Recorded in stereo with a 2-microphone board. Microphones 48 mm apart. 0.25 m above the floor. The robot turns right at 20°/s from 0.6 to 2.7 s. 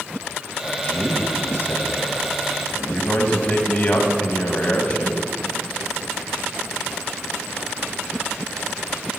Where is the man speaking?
100° left, 1.4 m; by 5.2 s 135° left, 1.4 m.